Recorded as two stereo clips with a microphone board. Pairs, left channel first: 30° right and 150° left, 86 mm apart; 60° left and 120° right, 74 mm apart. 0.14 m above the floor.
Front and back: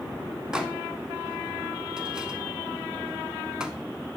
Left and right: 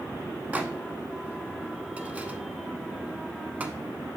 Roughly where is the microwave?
Behind right.